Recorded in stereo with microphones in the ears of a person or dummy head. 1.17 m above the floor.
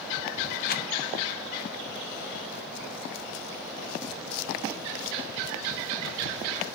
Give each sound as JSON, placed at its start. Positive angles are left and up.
{"t": 0.7, "sound": "a rattle", "side_deg": 45, "distance_m": 0.5}